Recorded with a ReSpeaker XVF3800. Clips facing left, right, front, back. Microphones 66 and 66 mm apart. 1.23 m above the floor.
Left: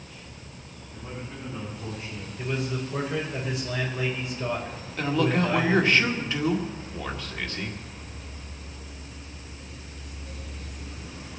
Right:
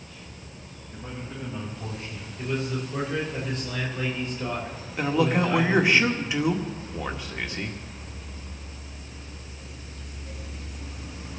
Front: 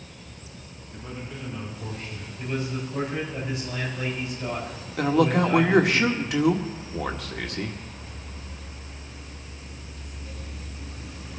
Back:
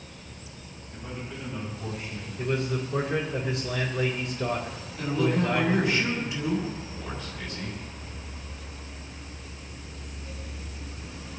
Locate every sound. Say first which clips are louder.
0.9 s a man speaking: right 1 dB, even; 105° right, 6.5 m; by 2.3 s 110° right, 8.5 m
2.4 s a man speaking: right 1 dB, back 2 dB; straight behind, 4.5 m
5.0 s a man speaking: right 1 dB, front 5 dB; 15° right, 1.9 m